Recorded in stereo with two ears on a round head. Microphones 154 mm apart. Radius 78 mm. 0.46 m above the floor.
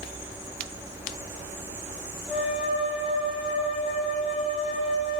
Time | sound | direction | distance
2.3 | a flute | 5° right (ahead or behind) | 2.5 m